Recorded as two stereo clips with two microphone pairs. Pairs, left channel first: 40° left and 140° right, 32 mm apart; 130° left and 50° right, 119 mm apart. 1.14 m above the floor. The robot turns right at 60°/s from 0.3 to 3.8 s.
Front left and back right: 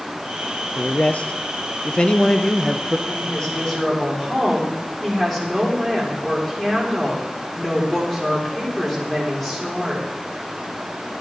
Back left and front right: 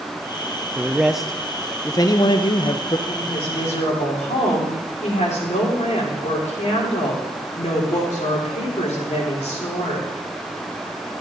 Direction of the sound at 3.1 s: 75° left.